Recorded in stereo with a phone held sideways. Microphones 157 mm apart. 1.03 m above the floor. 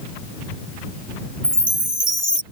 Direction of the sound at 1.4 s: 60° right (ahead or behind).